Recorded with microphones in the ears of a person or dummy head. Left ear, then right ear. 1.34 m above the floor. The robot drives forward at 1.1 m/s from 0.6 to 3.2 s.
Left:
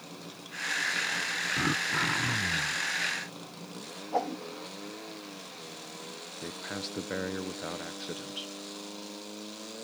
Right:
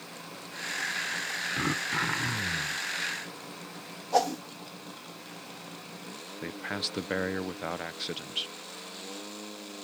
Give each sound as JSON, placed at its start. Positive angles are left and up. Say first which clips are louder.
{"t": 1.6, "sound": "throat clearing", "louder": "left 1 dB", "side_deg": -10}
{"t": 4.1, "sound": "a whoosh", "louder": "right 5 dB", "side_deg": -70}
{"t": 6.4, "sound": "a man speaking", "louder": "right 5 dB", "side_deg": -25}